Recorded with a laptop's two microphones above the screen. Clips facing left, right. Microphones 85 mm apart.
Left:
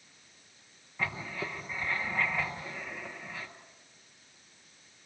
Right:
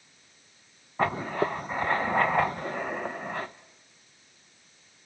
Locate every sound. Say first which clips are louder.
1.0 s writing: right 10 dB; 50° right (ahead or behind), 0.7 m